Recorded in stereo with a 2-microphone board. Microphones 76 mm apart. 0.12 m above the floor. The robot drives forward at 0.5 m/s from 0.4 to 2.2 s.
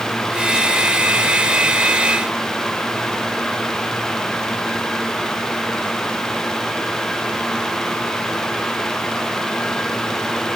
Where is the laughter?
I don't hear laughter.